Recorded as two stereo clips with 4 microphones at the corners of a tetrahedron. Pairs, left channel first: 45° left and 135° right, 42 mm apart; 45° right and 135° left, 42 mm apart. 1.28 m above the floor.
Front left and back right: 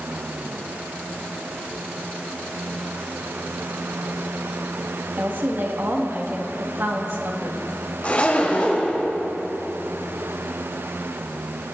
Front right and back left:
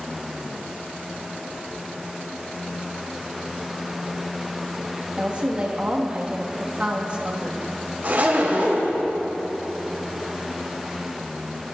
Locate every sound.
5.2 s a woman speaking: 165° right, 1.8 m
8.0 s a zipper: 95° left, 3 m